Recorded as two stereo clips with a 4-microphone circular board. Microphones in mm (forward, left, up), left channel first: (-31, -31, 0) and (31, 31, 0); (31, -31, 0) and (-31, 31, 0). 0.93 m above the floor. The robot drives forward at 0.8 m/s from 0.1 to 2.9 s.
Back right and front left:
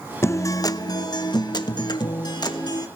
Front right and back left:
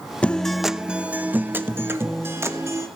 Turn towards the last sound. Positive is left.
turn(degrees=-170)